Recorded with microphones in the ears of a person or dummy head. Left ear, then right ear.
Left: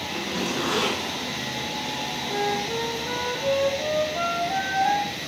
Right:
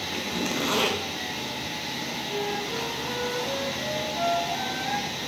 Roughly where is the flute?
Left.